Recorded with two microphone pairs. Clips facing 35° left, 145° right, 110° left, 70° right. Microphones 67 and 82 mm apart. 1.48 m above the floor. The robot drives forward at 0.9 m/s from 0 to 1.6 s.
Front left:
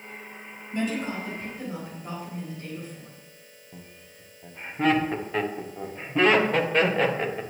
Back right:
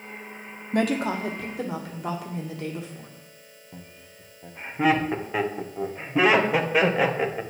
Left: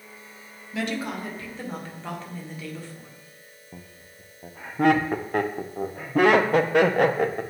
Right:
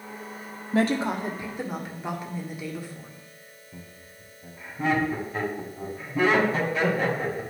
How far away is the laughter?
About 0.8 m.